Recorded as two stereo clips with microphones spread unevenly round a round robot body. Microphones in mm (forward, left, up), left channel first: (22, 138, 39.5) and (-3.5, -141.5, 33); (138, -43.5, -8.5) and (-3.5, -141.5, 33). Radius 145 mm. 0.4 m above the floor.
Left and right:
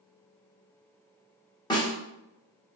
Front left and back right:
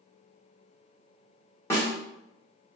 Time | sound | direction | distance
1.7 | a snare drum | 25° left | 1.2 m